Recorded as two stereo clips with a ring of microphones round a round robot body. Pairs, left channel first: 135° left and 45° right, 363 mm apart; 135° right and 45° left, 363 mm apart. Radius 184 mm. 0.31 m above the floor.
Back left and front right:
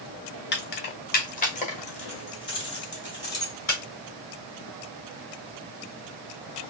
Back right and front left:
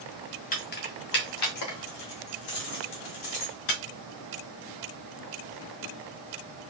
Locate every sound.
0.5 s keys jangling: 175° left, 1.0 m; by 3.8 s 145° right, 2.5 m